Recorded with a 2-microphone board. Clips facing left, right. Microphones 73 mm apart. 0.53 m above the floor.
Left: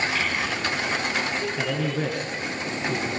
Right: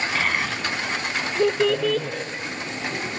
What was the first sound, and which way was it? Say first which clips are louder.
A child speaking: right 2 dB; 45° right (ahead or behind).